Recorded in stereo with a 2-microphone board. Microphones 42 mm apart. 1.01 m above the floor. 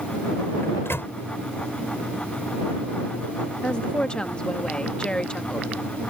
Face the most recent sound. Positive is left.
turn(degrees=25)  # may be behind; listen again after turning